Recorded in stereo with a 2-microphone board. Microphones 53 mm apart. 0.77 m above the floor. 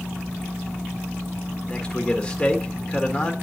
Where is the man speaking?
20° left (ahead or behind), 2.0 m.